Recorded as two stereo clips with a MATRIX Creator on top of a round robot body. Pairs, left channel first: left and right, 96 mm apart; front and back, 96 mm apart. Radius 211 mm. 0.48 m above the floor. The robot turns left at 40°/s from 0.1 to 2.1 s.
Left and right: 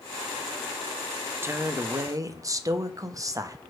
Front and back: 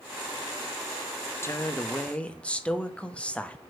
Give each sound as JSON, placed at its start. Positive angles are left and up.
{"t": 1.4, "sound": "a woman speaking", "azimuth_deg": -40, "distance_m": 1.0}